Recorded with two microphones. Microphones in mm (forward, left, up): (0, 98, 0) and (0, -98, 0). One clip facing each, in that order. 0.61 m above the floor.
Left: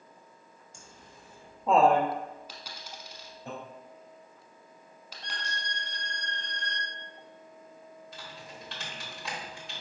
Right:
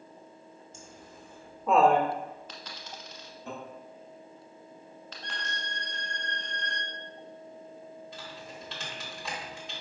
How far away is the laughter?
About 1.0 m.